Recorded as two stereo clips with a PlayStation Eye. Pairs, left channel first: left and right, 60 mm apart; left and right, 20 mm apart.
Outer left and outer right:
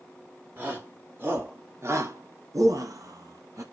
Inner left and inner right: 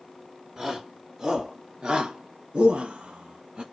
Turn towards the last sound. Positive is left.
turn(degrees=-60)  # may be behind; listen again after turning